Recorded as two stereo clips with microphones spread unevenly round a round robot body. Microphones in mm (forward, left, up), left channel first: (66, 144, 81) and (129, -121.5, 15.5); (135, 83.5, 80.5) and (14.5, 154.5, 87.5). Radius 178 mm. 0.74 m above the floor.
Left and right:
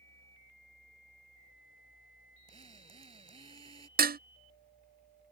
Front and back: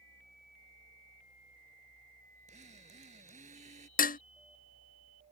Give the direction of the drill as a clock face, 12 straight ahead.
5 o'clock.